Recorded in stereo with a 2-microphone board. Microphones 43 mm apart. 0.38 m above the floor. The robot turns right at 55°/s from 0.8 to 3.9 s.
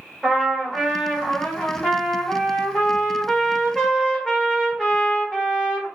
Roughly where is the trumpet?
Centre.